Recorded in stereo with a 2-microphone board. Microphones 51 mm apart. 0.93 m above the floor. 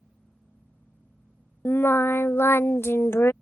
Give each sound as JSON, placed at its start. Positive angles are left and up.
{"t": 1.6, "sound": "singing", "side_deg": 55}